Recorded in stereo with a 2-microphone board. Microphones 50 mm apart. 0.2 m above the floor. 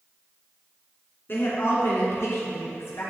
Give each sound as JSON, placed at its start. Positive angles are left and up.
{"t": 1.3, "sound": "a woman speaking", "side_deg": 45, "distance_m": 2.5}